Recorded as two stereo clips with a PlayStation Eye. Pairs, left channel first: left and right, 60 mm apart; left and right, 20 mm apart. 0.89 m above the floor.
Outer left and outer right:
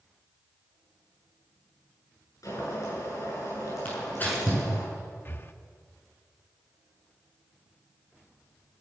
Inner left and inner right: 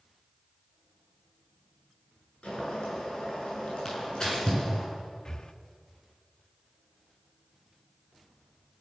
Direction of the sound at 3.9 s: 30° left (ahead or behind).